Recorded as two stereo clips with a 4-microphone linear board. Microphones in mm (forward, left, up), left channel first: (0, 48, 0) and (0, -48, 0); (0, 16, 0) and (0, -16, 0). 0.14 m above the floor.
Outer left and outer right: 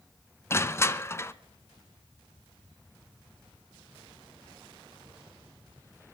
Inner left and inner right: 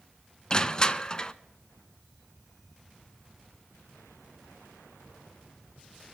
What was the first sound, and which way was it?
Crushing, 25° left (ahead or behind).